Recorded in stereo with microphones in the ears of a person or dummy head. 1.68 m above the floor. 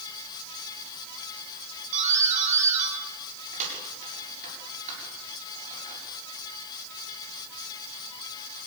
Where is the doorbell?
45° right (ahead or behind), 7.5 m.